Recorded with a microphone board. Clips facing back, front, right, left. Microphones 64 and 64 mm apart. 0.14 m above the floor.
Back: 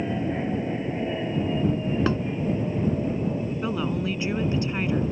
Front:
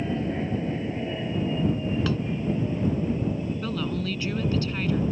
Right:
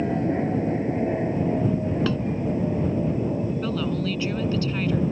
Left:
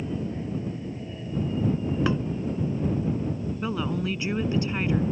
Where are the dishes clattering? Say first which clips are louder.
Back 5 dB, left 3 dB; 145° left.